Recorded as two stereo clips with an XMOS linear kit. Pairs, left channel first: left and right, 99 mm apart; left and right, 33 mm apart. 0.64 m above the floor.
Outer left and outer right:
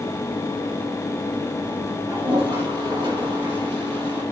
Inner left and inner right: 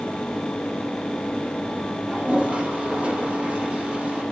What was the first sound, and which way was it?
A toilet flushing, 50° right (ahead or behind).